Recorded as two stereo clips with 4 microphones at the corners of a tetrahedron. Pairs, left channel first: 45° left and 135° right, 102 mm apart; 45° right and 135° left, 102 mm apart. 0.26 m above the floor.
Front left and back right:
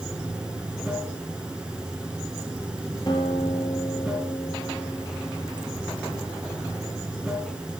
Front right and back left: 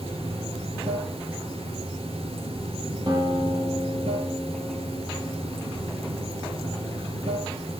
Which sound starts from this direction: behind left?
Running water, at 0.0 s.